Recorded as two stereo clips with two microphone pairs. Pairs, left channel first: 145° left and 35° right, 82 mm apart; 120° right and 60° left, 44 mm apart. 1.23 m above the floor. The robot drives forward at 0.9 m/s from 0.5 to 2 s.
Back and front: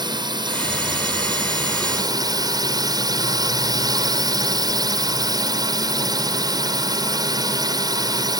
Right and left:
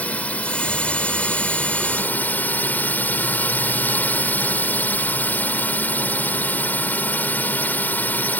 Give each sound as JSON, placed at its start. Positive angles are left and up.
{"t": 0.0, "sound": "a drone", "azimuth_deg": -65}